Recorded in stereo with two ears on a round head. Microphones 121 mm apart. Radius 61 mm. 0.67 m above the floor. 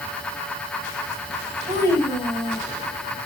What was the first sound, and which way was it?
A child speaking, 30° right (ahead or behind).